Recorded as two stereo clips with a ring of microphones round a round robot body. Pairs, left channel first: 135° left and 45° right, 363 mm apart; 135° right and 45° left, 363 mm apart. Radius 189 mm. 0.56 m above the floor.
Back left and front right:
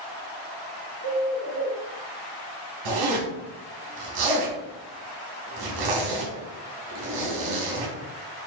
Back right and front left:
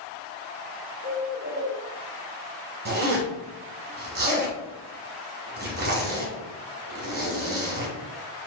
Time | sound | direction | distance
1.0 | a bird | 165° right | 1.2 m
2.9 | a zipper | 20° right | 1.7 m